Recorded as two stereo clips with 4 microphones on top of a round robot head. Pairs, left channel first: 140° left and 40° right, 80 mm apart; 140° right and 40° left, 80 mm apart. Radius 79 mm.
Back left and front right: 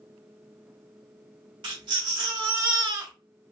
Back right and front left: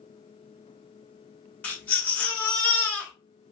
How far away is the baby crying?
About 1.9 m.